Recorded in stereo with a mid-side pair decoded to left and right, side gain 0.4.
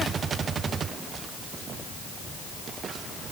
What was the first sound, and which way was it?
Only background noise.